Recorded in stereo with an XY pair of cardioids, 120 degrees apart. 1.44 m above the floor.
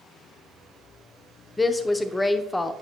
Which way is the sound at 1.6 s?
15° left.